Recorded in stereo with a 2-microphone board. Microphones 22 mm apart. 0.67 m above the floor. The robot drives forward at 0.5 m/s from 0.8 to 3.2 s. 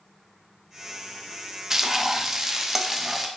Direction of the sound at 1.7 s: 25° right (ahead or behind).